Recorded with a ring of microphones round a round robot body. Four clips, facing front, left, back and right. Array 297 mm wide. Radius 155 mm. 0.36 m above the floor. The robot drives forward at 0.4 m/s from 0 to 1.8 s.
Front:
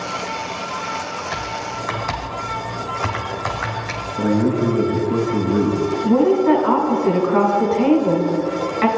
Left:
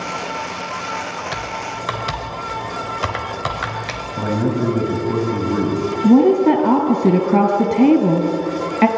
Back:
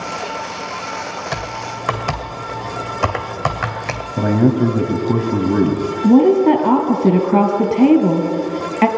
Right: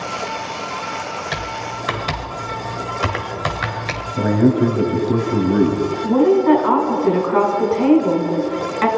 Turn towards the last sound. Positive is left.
turn(degrees=140)